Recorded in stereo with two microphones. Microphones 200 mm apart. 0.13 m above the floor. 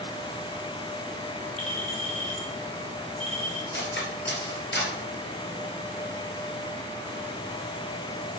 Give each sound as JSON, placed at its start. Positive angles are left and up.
{"t": 1.6, "sound": "a clink", "side_deg": 35, "distance_m": 2.0}
{"t": 3.7, "sound": "cutlery clinking", "side_deg": 60, "distance_m": 1.5}